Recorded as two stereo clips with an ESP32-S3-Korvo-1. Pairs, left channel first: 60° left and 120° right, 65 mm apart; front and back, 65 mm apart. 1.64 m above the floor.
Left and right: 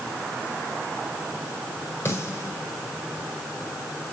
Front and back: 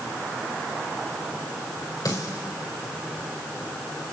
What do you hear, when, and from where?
2.0 s a snare drum: 10° left, 5 m